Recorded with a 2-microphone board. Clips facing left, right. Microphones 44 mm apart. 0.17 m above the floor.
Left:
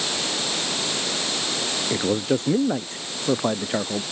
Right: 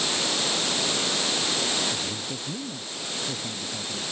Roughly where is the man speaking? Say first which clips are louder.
Left 10 dB; left.